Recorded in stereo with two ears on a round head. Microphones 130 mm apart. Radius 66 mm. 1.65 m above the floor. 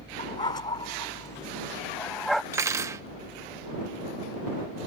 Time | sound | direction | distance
0.2 | a dog barking | 30° left (ahead or behind) | ?
2.5 | cutlery clinking | 20° right (ahead or behind) | ?